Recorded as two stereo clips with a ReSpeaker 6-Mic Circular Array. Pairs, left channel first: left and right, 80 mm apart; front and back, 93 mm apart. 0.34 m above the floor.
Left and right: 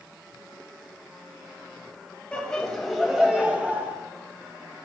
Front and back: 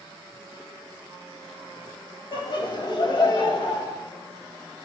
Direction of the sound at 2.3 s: 15° left.